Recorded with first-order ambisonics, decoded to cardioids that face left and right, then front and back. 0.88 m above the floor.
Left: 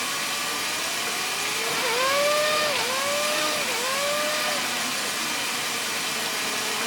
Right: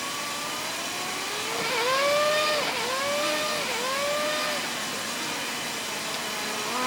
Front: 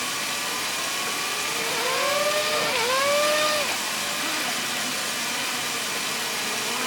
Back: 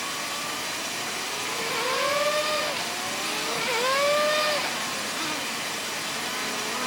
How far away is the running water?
About 1.1 m.